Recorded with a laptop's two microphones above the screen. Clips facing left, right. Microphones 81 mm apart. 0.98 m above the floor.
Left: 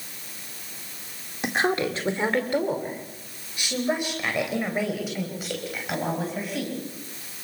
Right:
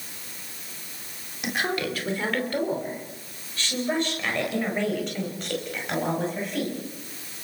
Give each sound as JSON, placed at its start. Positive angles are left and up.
{"t": 1.4, "sound": "a woman speaking", "side_deg": 30, "distance_m": 2.0}